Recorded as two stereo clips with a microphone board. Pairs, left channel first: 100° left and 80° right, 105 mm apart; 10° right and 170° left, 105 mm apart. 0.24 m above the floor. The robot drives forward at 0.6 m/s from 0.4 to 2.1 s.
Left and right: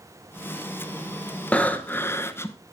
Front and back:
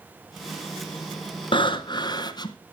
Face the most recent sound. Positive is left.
turn(degrees=35)